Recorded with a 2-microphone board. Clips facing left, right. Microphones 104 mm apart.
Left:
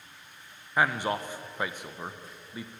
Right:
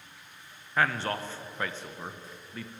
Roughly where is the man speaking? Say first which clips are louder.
Left 1 dB; centre.